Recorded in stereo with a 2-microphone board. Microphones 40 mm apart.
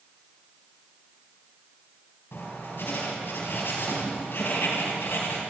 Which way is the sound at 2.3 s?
65° left (ahead or behind).